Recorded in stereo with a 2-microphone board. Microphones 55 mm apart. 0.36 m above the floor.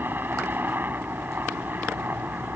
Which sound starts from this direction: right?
A helicopter, at 0.0 s.